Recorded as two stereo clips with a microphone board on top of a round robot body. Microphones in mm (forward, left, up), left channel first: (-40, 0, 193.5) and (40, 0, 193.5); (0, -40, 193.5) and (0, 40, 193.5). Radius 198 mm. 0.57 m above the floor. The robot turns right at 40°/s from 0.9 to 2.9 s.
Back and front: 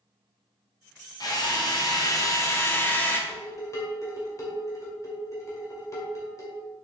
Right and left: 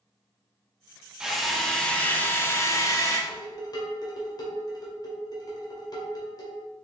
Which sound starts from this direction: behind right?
Dishes clattering, at 3.3 s.